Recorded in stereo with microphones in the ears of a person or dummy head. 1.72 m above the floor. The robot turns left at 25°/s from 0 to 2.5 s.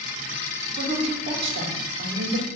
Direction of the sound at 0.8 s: 55° right.